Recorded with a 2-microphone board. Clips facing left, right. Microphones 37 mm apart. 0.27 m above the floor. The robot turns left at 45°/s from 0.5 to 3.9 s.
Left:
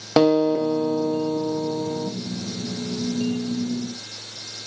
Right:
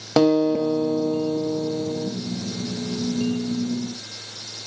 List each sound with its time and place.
0.2 s a guitar: 155° left, 1.0 m; by 2.1 s 85° left, 1.0 m